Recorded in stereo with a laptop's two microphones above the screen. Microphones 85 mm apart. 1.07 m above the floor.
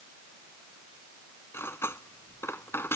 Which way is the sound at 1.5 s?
30° left (ahead or behind).